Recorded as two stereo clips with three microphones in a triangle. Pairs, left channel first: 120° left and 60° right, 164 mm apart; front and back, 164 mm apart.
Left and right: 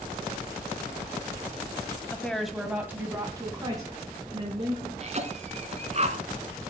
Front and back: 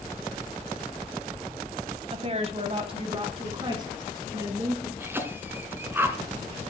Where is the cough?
105° right, 2.5 m.